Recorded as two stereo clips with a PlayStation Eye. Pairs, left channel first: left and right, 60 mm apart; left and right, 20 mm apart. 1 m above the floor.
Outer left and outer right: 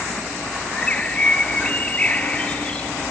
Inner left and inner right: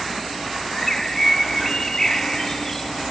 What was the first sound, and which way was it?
A bird, 25° left (ahead or behind).